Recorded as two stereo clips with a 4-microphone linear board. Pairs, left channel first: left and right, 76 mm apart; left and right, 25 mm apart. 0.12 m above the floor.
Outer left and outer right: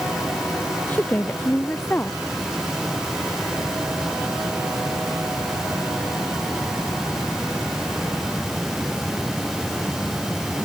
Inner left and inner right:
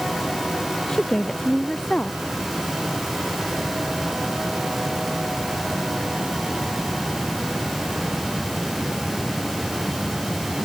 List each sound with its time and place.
0.9 s a woman speaking: 25° left (ahead or behind)